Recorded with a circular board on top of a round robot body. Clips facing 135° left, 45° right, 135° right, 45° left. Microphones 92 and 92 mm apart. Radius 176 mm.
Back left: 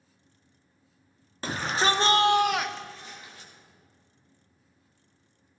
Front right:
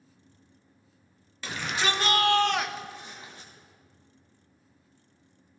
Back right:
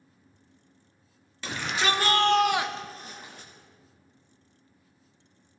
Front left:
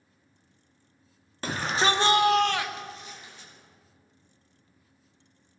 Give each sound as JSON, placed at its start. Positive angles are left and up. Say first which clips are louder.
{"t": 1.4, "sound": "a shout", "louder": "back left 4 dB, front left 3 dB", "azimuth_deg": 90, "distance_m": 1.7}